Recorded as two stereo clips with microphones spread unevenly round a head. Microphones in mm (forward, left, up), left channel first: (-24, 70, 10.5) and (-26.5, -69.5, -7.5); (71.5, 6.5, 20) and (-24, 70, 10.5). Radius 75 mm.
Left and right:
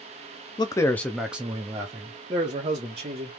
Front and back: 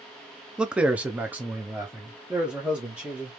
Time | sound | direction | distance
0.6 | a man speaking | 90° left | 0.6 m